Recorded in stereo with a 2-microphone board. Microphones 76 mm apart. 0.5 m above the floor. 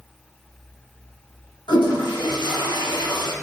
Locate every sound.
1.7 s a toilet flushing: 85° left, 2.5 m